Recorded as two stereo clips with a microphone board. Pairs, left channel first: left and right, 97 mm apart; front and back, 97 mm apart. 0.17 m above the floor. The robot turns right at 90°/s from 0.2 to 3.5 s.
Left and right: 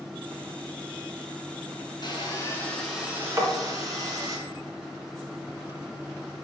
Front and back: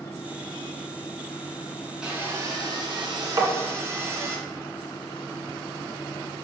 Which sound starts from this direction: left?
Sawing, at 2.0 s.